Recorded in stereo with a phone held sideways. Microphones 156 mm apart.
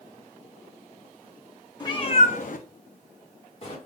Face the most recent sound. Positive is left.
turn(degrees=40)  # may be behind; listen again after turning